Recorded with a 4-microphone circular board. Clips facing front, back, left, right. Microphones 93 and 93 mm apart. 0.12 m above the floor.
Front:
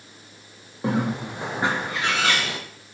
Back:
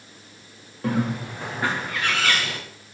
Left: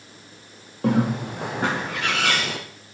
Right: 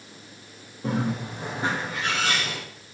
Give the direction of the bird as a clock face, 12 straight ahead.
10 o'clock.